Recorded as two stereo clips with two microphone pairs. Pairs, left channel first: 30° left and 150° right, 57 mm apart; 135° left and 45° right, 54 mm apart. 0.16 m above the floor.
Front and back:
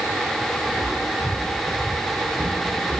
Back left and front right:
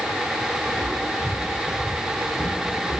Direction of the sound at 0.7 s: 150° left.